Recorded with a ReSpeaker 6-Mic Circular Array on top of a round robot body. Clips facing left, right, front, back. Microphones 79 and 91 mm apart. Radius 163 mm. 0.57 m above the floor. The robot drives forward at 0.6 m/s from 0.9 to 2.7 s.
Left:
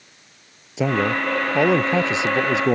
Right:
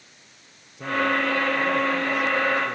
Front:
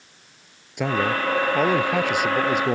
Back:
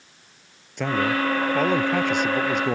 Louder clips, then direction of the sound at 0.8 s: Left 3 dB, even; 80° left.